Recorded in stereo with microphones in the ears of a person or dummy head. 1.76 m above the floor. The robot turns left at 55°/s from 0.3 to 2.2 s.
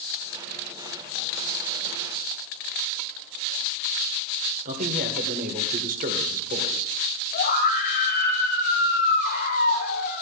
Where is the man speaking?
50° right (ahead or behind), 2.0 m.